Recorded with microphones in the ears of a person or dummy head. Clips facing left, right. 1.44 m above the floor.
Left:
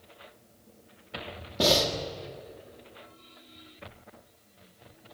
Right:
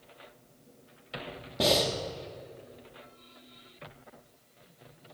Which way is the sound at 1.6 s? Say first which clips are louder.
Left 1 dB; 5° right (ahead or behind).